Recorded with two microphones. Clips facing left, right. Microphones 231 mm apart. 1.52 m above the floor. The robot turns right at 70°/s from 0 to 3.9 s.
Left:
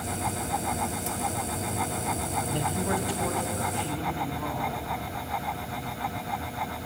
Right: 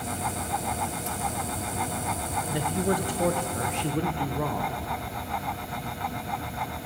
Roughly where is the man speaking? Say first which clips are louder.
Right 4 dB; behind.